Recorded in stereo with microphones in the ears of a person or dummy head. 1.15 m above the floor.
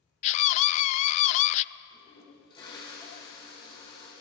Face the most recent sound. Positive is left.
turn(degrees=25)  # may be behind; listen again after turning